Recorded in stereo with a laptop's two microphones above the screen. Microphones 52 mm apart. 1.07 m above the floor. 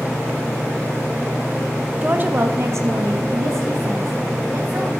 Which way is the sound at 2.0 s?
25° right (ahead or behind).